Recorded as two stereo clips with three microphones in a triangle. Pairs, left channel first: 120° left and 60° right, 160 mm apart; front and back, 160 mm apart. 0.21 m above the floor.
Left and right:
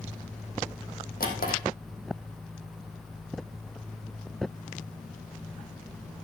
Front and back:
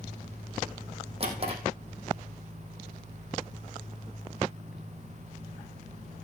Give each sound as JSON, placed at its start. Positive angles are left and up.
{"t": 1.2, "sound": "a drawer", "azimuth_deg": 130, "distance_m": 3.0}